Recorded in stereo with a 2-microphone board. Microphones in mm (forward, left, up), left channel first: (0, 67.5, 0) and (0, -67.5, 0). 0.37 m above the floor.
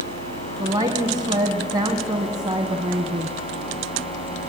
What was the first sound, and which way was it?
A woman speaking, 30° right (ahead or behind).